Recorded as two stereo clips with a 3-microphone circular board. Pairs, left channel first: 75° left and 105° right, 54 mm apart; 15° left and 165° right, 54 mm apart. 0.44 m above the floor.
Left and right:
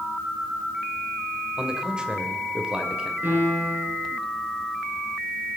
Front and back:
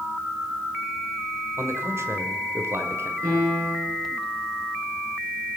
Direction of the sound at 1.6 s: 175° right.